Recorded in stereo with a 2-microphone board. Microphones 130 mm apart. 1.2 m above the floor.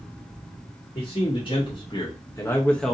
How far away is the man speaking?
About 1.3 m.